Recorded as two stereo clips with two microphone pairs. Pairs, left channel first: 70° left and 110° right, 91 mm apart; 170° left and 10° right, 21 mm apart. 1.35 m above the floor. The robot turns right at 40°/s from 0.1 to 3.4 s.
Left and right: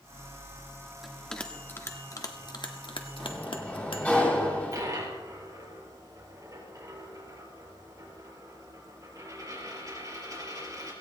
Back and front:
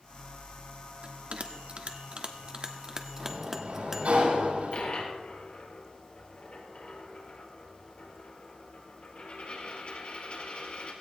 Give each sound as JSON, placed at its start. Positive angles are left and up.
{"t": 1.0, "sound": "a bell", "azimuth_deg": -25, "distance_m": 1.5}
{"t": 3.2, "sound": "a sliding door", "azimuth_deg": -15, "distance_m": 7.5}
{"t": 4.7, "sound": "a dropped coin", "azimuth_deg": -160, "distance_m": 4.5}